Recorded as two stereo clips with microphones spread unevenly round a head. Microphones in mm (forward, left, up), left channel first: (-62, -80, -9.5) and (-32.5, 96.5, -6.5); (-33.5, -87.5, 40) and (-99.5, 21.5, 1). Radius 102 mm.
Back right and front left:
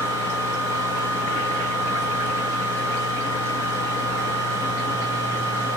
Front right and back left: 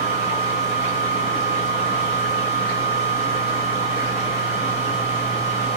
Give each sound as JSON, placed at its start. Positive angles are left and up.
{"t": 0.0, "sound": "a fan", "azimuth_deg": -20, "distance_m": 4.5}